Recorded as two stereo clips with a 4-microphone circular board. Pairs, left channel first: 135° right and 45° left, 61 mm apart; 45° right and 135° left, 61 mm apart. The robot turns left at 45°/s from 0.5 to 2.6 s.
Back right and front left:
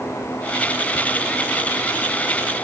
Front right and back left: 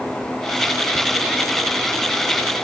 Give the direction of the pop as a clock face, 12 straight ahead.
I don't hear a pop.